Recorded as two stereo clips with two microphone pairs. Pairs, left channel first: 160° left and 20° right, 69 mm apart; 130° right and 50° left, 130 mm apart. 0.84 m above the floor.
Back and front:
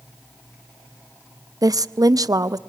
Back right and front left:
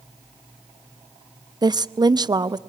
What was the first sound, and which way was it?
A woman speaking, 5° right.